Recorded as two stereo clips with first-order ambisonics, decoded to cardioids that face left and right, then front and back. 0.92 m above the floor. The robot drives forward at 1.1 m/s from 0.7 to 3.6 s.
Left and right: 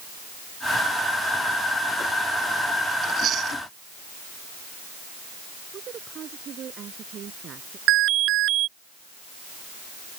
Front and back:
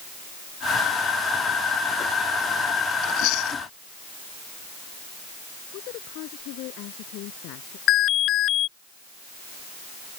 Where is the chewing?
30° right; by 3.6 s 35° right.